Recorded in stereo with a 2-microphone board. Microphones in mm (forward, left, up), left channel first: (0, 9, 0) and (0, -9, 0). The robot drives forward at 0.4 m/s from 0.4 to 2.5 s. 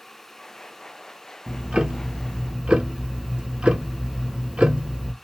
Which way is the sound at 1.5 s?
50° right (ahead or behind).